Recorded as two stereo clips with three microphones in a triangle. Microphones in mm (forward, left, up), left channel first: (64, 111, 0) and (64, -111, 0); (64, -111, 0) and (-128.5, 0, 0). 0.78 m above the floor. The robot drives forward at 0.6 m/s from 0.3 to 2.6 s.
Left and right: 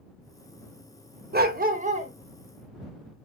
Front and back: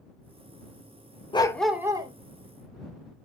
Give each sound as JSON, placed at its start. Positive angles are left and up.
{"t": 1.3, "sound": "a dog barking", "azimuth_deg": -90, "distance_m": 0.5}